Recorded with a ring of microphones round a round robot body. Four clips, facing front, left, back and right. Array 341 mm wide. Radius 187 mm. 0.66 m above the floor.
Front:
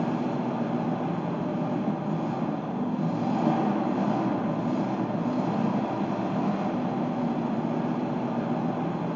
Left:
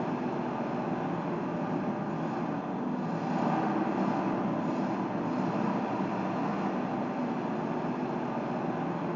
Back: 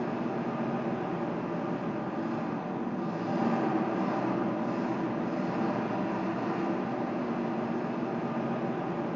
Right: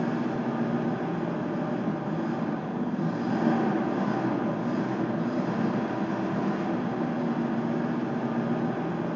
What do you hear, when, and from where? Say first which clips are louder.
0.0 s an engine running: right 4 dB, front 4 dB; 25° right, 3 m